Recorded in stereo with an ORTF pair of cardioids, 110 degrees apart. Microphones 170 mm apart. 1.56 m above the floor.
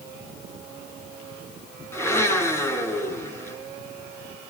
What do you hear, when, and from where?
1.9 s a blender: 15° left, 10 m